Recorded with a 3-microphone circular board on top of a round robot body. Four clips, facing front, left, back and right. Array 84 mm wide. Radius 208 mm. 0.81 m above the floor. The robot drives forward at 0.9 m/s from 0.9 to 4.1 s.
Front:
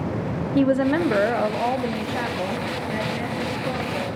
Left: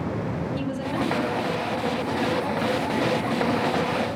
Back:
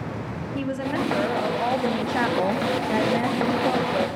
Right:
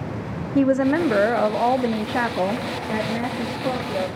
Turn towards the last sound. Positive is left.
turn(degrees=-155)